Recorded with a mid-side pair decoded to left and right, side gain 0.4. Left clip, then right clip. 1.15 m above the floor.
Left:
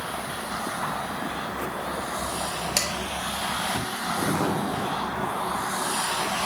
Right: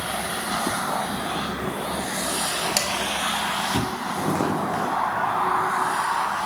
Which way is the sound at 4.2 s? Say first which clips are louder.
Right 2 dB; 45° right.